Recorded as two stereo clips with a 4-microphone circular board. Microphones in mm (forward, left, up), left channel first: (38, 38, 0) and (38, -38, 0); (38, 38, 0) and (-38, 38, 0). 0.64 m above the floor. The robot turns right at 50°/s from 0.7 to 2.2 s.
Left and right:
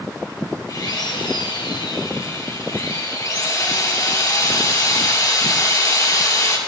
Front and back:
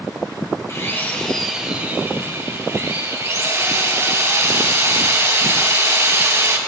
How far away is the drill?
About 2.5 m.